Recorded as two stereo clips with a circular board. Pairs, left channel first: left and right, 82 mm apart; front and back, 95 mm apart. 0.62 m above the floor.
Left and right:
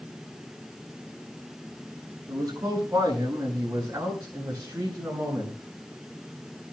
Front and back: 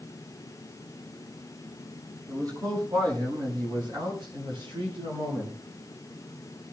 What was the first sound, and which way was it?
A man speaking, 140° right.